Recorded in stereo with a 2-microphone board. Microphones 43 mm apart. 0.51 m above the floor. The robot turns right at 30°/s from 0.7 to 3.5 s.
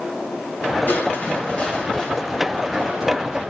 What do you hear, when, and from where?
0.9 s crushing: 120° left, 3 m; by 3.4 s 160° right, 3 m